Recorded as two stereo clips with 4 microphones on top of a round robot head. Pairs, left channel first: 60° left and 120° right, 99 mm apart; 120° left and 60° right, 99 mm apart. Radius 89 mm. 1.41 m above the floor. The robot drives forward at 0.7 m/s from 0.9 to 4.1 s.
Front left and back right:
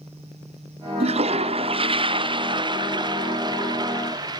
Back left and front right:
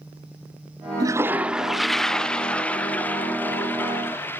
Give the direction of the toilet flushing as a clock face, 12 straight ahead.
4 o'clock.